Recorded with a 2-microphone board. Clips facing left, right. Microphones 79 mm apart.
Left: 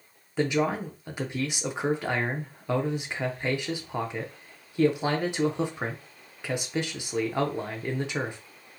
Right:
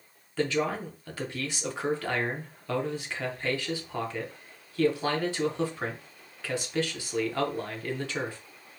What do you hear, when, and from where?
0.4 s a man speaking: 15° left (ahead or behind), 0.7 m